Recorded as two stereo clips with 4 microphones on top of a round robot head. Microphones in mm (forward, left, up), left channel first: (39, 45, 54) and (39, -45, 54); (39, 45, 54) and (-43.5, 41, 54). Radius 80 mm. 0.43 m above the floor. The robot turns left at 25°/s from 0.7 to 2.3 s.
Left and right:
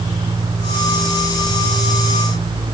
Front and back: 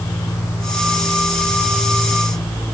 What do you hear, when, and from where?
Only background noise.